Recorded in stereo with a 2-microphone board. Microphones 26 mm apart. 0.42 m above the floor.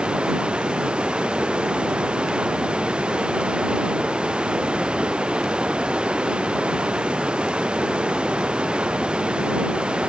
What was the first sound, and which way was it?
Running water, 40° right (ahead or behind).